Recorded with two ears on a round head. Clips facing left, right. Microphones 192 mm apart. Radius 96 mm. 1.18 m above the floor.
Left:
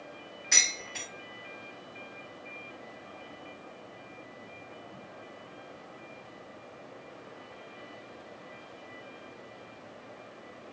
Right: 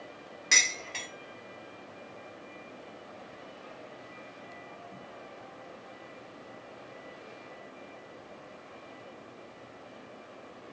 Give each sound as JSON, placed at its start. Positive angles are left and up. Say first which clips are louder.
{"t": 0.5, "sound": "dishes clattering", "louder": "right 2 dB", "side_deg": -75, "distance_m": 1.8}